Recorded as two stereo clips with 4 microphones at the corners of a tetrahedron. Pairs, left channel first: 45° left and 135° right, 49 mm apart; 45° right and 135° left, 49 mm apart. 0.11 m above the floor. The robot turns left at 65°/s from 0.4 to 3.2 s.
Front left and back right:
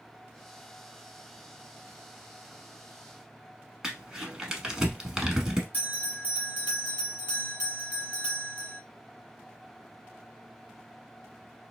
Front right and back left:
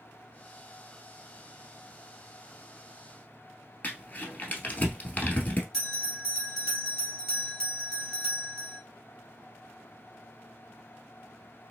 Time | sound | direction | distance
3.8 | crumpling | 65° right | 1.1 m
5.7 | a bell | 25° left | 1.7 m